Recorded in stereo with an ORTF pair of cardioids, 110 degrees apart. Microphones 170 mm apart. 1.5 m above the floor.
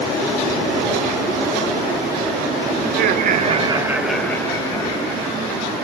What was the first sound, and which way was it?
Laughter, 65° right.